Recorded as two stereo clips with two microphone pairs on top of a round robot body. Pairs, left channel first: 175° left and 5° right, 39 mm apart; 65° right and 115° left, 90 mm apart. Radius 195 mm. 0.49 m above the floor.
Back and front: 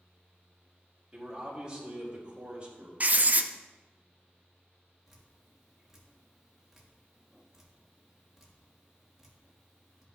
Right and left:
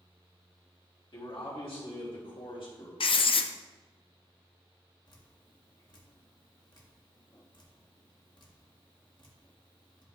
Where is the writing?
50° right, 0.6 m.